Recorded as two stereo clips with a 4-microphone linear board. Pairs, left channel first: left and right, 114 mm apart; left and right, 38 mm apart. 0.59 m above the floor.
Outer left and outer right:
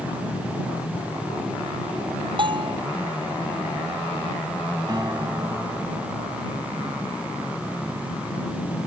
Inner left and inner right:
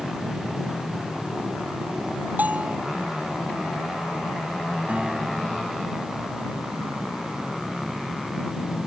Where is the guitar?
40° right (ahead or behind).